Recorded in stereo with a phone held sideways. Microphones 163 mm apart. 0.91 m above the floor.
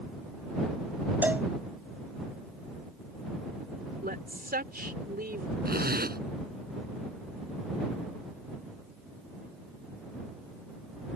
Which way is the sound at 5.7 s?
70° right (ahead or behind).